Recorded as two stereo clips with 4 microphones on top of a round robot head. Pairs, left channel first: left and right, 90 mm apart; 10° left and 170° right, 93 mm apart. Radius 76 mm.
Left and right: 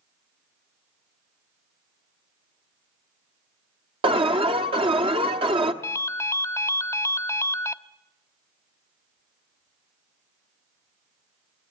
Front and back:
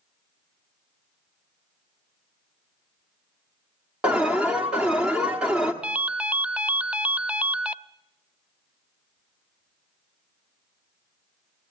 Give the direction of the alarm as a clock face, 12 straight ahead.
3 o'clock.